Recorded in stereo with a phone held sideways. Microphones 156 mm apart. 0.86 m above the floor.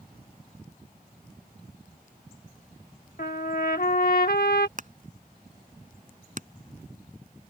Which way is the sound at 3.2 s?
70° left (ahead or behind).